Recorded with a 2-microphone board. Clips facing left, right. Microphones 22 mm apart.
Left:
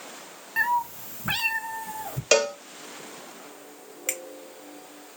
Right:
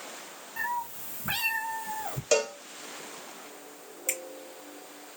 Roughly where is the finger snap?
Left.